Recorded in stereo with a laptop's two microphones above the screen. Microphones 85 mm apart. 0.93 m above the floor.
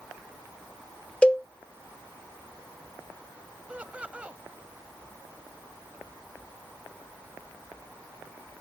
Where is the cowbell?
15° left (ahead or behind).